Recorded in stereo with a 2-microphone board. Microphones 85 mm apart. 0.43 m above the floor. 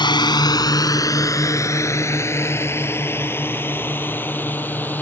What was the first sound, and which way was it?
A drone, 60° left (ahead or behind).